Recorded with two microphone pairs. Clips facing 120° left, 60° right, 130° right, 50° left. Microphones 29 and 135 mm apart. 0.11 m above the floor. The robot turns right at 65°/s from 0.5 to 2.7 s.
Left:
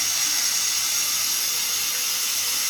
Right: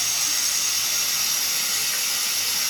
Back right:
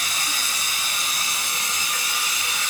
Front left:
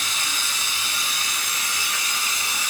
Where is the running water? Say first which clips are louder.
Even, back right 1 dB; 155° right, 1.5 m; by 2.7 s 15° right, 1.5 m.